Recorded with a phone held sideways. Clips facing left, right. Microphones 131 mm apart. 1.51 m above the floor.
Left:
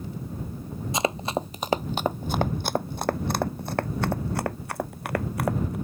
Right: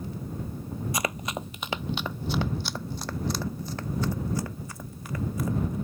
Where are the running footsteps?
25° left (ahead or behind); by 5.8 s 70° left (ahead or behind).